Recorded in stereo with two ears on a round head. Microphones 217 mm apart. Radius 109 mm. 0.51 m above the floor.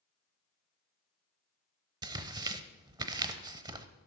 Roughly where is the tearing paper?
Centre.